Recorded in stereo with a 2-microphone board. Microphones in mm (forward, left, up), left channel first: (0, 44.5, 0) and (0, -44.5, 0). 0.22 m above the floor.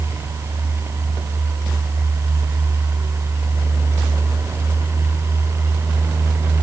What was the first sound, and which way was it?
Only background noise.